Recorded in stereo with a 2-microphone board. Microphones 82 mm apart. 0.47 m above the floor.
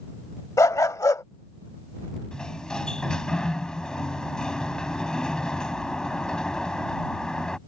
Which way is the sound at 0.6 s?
45° left (ahead or behind).